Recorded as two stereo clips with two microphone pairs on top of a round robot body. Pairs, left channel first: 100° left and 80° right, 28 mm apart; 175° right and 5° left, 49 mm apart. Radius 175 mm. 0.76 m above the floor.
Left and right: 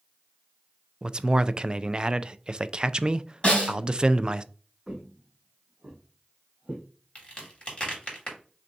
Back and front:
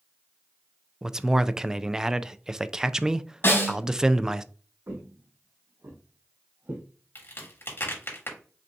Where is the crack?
150° left, 2.5 m.